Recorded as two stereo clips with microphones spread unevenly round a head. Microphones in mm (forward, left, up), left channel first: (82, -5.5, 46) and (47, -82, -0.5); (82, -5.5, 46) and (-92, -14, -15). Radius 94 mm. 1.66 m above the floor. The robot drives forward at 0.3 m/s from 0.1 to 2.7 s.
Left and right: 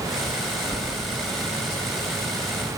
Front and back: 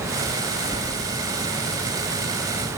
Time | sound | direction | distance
0.7 | keys jangling | 60° left | 2.5 m